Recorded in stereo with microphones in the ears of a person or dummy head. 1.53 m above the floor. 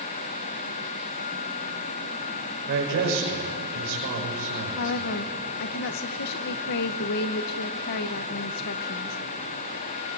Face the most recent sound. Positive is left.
turn(degrees=50)  # may be behind; listen again after turning